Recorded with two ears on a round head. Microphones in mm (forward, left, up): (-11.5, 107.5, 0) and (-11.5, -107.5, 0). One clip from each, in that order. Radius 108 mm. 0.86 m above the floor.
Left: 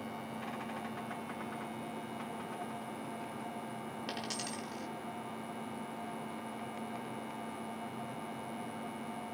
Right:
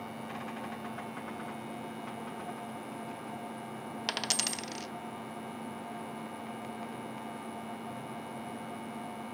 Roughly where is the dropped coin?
Right.